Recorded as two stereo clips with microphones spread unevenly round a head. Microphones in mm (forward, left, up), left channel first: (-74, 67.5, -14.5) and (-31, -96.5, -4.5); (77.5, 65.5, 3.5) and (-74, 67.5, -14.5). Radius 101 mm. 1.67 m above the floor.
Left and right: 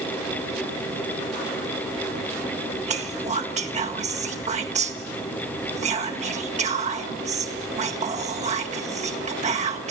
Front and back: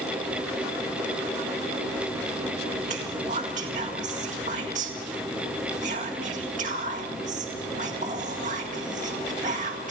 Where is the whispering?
125° right, 1.8 m.